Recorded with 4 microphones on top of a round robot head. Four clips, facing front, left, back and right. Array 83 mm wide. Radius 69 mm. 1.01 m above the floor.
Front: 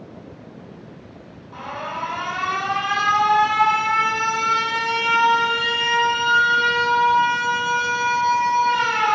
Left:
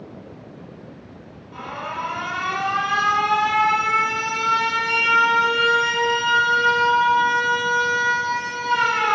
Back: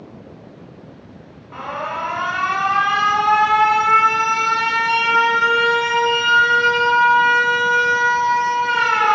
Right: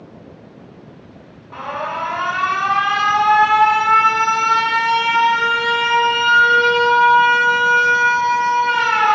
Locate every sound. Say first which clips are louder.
1.5 s an alarm: right 6 dB, back 4 dB; 140° right, 5 m